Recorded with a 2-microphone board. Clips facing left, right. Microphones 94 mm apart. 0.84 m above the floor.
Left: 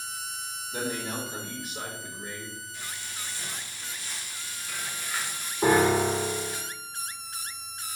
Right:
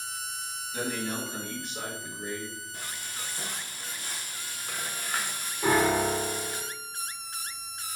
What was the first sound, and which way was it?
A man speaking, 55° left (ahead or behind).